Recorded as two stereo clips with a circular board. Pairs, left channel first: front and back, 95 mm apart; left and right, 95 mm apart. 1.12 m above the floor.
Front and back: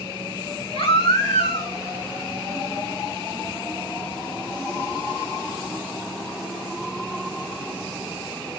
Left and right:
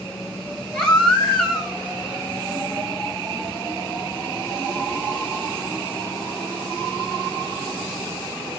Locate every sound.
0.7 s a baby crying: 10° left, 3.5 m